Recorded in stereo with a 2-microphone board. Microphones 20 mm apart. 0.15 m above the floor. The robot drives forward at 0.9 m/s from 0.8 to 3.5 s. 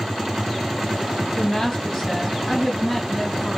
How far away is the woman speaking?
About 4 m.